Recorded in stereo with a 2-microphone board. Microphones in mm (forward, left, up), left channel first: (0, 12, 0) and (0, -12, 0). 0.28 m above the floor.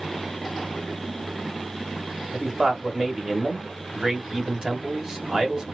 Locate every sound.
2.3 s a man speaking: 25° right (ahead or behind), 1.0 m